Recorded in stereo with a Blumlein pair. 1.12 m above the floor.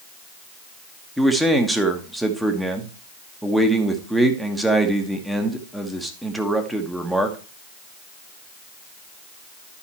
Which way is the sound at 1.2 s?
5° right.